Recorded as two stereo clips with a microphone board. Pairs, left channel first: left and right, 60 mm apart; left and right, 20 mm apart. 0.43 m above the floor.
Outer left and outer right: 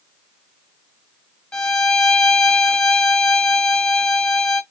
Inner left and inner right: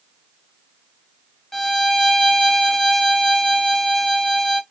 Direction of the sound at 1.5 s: 20° left (ahead or behind).